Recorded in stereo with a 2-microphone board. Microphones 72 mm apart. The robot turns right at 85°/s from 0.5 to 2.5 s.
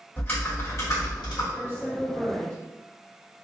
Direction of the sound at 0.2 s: 30° left.